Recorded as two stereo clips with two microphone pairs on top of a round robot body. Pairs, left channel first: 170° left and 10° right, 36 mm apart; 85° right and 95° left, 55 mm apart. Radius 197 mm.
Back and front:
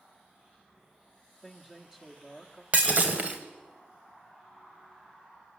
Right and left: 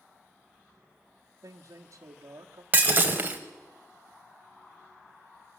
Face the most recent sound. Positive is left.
turn(degrees=40)